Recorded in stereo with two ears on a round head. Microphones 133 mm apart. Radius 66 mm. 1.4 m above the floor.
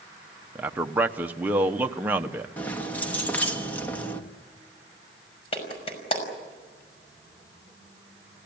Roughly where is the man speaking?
Centre.